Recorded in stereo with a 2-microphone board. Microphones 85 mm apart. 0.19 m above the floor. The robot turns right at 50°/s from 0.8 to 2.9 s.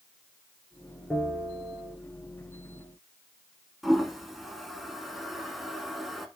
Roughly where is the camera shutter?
No camera shutter in this recording.